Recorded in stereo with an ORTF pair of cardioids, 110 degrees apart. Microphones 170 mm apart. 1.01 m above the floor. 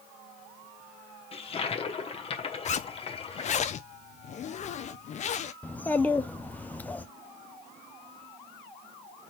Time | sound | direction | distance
1.3 | a toilet flushing | 35° left | 1.0 m
2.6 | a zipper | 45° left | 0.6 m
5.6 | a child speaking | 10° left | 0.6 m